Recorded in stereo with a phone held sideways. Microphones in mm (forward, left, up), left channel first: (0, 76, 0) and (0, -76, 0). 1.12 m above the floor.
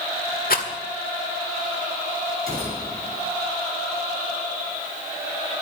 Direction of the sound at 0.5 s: 70° left (ahead or behind).